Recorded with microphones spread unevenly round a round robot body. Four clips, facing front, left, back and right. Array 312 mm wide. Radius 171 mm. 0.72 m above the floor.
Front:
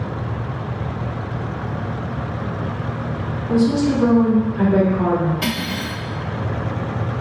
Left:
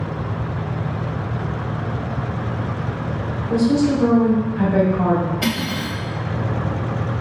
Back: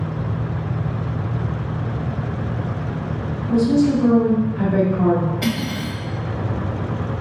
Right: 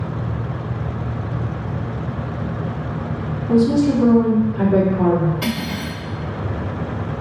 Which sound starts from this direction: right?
Cutlery clinking, at 5.4 s.